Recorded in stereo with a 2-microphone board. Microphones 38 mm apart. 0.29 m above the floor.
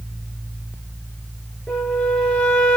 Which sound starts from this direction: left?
A flute, at 1.7 s.